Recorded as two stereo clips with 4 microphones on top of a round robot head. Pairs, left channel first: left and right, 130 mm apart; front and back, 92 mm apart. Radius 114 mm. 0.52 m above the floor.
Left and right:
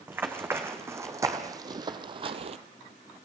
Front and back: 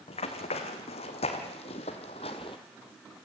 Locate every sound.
0.1 s running footsteps: 15° right, 2 m; by 2.6 s 60° right, 0.8 m